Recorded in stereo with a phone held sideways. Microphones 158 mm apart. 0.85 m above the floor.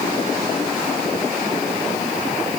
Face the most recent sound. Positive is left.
No sound to turn to.